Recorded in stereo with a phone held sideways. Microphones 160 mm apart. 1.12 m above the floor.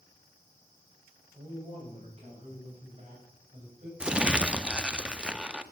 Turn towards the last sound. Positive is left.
turn(degrees=-5)  # may be behind; listen again after turning